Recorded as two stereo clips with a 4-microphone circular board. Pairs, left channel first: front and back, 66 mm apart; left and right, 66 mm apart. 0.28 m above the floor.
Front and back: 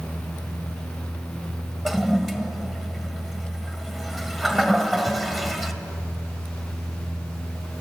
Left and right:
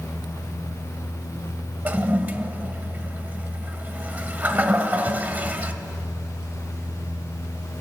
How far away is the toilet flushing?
About 1.5 m.